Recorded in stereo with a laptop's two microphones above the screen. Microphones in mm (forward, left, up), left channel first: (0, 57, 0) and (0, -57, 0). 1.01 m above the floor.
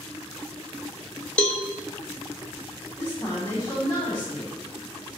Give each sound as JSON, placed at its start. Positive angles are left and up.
{"t": 1.4, "sound": "a cowbell", "side_deg": 10, "distance_m": 0.7}
{"t": 3.0, "sound": "a woman speaking", "side_deg": 35, "distance_m": 1.3}